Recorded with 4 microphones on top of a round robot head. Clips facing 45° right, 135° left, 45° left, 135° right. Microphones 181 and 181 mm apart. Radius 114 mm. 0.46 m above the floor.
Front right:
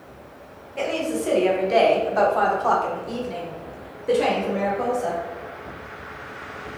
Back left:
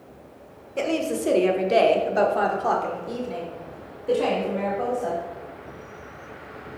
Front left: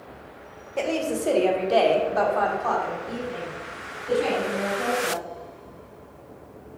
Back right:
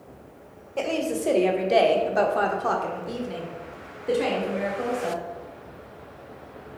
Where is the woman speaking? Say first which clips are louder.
Even, front left 1 dB; 125° left, 1.4 m; by 5.2 s 115° right, 2.5 m.